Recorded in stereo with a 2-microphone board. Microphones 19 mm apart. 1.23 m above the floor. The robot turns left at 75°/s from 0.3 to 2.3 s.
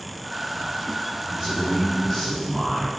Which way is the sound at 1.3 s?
130° right.